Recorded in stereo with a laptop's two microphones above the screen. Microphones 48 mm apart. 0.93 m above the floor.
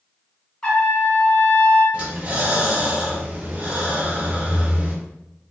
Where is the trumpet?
20° left (ahead or behind), 1.5 m.